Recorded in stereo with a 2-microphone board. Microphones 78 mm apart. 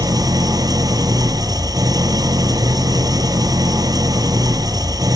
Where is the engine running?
55° right (ahead or behind), 1.1 m.